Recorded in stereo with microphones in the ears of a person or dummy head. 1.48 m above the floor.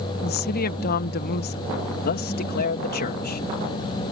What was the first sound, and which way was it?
A woman speaking, 55° left (ahead or behind).